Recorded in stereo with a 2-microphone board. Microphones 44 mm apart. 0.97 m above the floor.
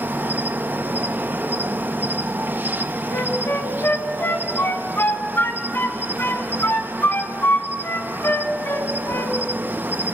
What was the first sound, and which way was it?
An insect, 45° right (ahead or behind).